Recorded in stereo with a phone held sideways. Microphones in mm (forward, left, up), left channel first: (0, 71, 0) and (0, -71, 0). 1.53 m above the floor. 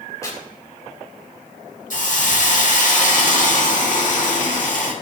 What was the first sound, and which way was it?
Tearing paper, 20° left (ahead or behind).